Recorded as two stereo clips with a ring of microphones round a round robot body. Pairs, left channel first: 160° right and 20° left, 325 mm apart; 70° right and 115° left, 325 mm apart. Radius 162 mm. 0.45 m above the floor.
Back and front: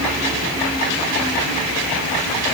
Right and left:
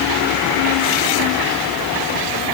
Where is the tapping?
No tapping in this recording.